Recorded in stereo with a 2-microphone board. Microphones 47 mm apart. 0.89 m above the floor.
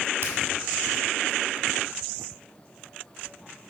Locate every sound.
0.2 s a finger snap: 70° right (ahead or behind), 1.9 m